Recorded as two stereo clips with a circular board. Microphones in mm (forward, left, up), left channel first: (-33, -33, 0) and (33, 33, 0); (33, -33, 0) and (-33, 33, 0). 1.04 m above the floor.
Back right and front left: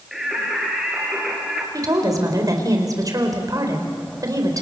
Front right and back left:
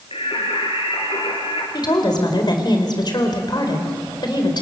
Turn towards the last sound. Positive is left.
turn(degrees=-5)